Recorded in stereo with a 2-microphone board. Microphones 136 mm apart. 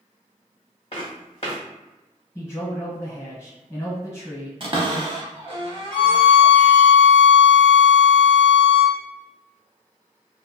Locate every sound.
0.9 s footsteps: 45° left (ahead or behind), 1.3 m
2.4 s a man speaking: 25° left (ahead or behind), 1.4 m
4.6 s a cupboard door: 40° right (ahead or behind), 0.5 m
5.9 s a violin: 10° left (ahead or behind), 0.9 m